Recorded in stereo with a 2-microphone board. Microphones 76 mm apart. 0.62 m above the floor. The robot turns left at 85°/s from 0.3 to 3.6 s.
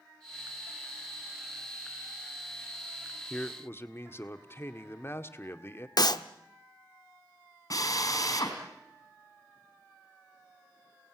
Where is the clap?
60° left (ahead or behind), 0.9 m.